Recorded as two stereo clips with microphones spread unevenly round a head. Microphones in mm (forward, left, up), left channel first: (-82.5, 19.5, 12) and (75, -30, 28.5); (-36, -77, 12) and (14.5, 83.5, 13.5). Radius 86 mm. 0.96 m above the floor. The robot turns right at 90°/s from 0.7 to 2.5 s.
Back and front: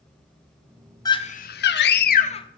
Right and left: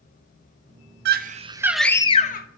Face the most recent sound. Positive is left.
turn(degrees=-135)